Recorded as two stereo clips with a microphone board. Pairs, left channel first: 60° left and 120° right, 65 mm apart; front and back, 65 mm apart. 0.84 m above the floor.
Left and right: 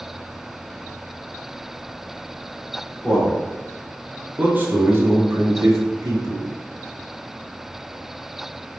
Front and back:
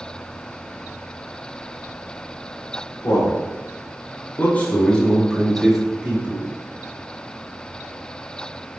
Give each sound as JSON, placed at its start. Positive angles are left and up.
{"t": 3.0, "sound": "a man speaking", "azimuth_deg": -35, "distance_m": 2.5}